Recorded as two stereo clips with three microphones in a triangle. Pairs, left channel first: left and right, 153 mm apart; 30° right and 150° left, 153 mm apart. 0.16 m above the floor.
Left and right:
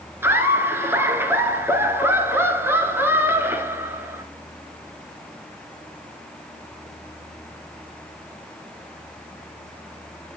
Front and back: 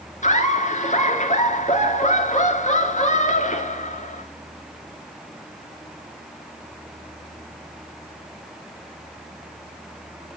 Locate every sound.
0.2 s laughter: 20° right, 2 m